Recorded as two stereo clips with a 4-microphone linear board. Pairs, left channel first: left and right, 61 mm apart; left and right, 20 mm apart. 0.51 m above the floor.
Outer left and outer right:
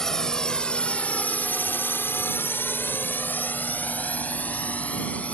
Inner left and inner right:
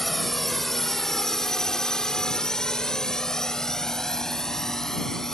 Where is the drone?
10° left (ahead or behind); by 5.3 s 20° left (ahead or behind).